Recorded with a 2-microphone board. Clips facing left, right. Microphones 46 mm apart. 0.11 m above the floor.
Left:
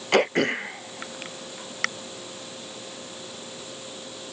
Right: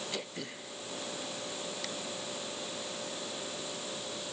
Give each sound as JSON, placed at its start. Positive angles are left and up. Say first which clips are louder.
{"t": 0.1, "sound": "throat clearing", "louder": "left 19 dB", "side_deg": 60}